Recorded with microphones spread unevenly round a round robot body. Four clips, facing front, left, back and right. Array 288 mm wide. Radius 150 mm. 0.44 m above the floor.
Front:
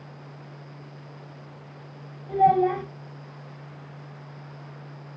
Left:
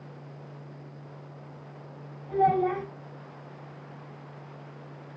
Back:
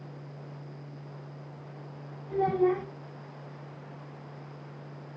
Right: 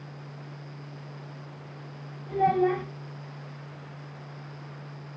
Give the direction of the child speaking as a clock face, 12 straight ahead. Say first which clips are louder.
Even, front 6 dB; 12 o'clock.